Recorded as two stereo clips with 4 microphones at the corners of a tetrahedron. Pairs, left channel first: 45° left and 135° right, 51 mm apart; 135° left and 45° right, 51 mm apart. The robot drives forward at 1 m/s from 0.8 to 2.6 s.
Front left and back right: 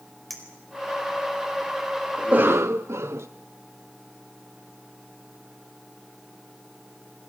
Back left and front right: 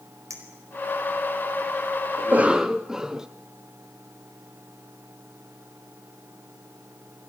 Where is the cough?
65° right, 0.5 m; by 3.3 s 120° right, 0.6 m.